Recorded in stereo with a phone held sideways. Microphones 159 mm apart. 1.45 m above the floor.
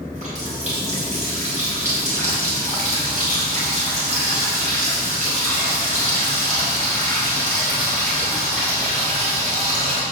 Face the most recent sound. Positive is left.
turn(degrees=-50)  # may be behind; listen again after turning